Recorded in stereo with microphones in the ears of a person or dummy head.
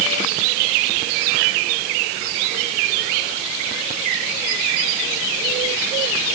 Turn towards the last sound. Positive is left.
No sound to turn to.